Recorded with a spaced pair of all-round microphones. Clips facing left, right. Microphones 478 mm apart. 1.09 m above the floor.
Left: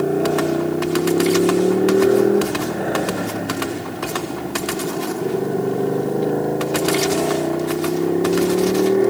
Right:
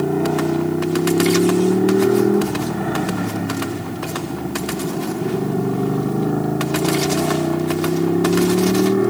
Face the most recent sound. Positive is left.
turn(degrees=-30)  # may be behind; listen again after turning